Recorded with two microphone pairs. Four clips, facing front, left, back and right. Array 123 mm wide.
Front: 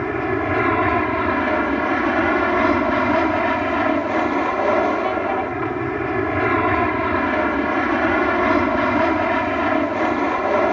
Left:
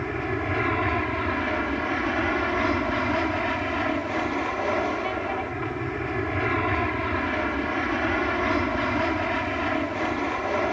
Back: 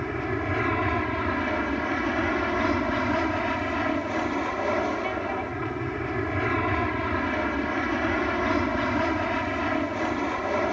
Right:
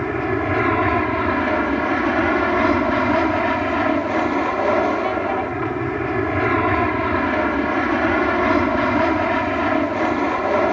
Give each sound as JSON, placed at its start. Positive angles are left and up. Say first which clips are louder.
{"t": 0.0, "sound": "an aircraft", "louder": "right 7 dB, front 8 dB", "azimuth_deg": -40}